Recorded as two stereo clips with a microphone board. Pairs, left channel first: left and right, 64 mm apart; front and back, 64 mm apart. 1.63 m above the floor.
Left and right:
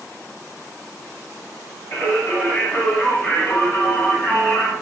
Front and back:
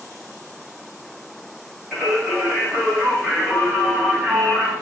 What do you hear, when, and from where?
1.9 s singing: 85° left, 1.8 m